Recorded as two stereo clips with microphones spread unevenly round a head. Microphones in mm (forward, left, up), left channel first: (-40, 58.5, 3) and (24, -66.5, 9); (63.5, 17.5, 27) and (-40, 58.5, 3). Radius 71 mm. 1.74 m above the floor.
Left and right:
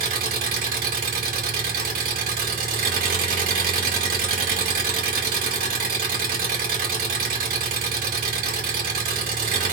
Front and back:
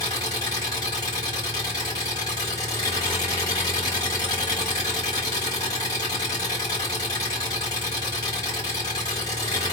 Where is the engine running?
80° right, 1.8 m.